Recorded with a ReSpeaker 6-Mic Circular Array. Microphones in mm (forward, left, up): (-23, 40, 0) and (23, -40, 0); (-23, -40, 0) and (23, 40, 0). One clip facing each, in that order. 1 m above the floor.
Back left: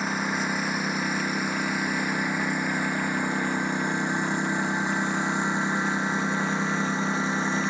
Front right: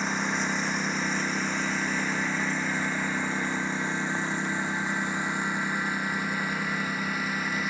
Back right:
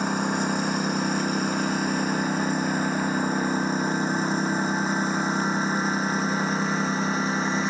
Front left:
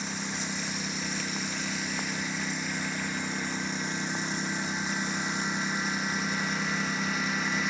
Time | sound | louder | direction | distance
0.0 | a lawn mower | back left 1 dB, back right 11 dB | 155° right | ?